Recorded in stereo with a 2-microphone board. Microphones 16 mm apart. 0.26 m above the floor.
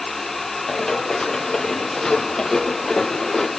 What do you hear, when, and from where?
0.7 s running footsteps: 35° left (ahead or behind), 6 m; by 3.5 s 25° left (ahead or behind), 3 m